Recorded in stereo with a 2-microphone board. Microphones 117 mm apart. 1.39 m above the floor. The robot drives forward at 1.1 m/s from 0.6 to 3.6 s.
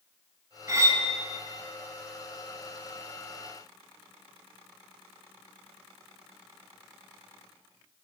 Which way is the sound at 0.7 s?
30° right (ahead or behind).